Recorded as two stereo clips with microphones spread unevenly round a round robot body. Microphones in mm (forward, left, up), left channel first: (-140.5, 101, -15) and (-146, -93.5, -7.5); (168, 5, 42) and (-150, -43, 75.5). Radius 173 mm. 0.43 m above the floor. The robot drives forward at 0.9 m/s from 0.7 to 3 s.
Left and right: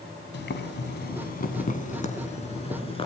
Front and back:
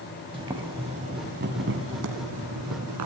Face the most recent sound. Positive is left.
turn(degrees=150)